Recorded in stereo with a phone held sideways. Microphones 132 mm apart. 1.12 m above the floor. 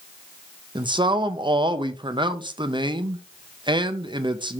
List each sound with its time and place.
0.8 s a man speaking: 35° right (ahead or behind), 0.6 m